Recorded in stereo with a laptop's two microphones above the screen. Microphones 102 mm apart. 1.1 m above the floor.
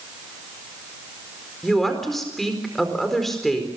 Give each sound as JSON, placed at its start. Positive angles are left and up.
{"t": 1.6, "sound": "a woman speaking", "side_deg": 0, "distance_m": 4.5}